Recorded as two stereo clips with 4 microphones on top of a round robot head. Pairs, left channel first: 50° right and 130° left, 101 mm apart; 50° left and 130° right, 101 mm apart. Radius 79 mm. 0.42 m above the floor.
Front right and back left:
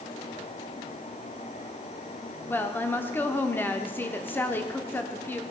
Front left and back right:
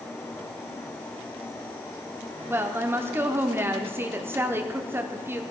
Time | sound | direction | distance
2.5 | a woman speaking | 95° right | 0.9 m